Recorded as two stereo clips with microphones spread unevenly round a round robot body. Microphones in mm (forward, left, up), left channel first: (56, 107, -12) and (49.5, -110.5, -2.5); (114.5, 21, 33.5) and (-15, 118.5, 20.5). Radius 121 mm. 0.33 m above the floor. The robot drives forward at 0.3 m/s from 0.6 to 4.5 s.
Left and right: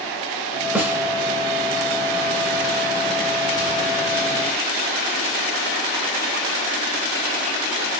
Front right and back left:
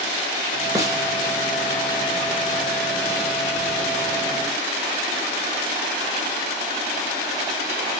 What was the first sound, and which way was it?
A snare drum, 175° right.